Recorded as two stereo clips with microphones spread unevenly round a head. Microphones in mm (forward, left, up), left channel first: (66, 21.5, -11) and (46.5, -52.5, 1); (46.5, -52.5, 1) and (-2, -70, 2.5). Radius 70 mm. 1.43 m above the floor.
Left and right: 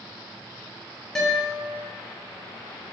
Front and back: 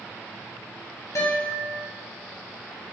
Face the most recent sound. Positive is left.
turn(degrees=-10)